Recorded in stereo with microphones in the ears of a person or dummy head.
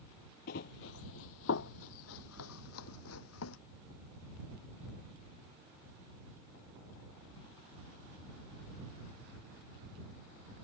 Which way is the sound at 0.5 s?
45° left (ahead or behind).